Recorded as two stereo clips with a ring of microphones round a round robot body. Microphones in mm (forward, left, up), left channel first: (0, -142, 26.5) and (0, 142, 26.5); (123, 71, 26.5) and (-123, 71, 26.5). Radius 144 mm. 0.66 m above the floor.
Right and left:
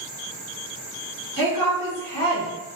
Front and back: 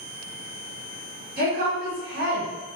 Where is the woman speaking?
160° right, 1.3 m.